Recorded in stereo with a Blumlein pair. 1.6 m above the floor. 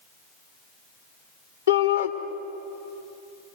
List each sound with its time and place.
1.7 s a shout: 65° left, 3 m